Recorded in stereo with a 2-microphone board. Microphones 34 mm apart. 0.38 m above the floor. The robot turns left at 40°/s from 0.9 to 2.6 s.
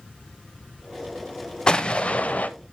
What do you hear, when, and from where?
1.7 s an explosion: 155° left, 0.6 m; by 2.5 s 120° left, 0.6 m